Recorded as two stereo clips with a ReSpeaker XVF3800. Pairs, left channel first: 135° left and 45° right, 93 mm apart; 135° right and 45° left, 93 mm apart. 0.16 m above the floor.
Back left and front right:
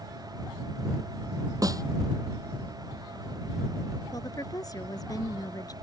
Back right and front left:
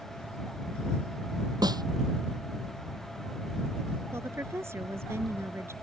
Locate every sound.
1.6 s a snare drum: 5° left
4.1 s a woman speaking: 100° left